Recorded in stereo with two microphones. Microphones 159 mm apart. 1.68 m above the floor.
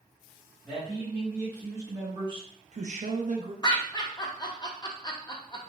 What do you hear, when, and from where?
0.6 s a man speaking: 5° right (ahead or behind), 1.8 m; by 3.5 s 55° right (ahead or behind), 0.9 m
3.6 s laughter: 25° left (ahead or behind), 0.6 m